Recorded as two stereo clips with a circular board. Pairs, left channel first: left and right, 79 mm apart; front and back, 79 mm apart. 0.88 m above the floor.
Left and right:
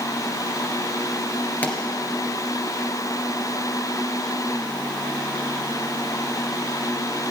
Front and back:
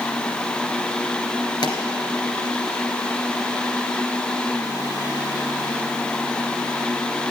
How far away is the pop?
About 2.5 m.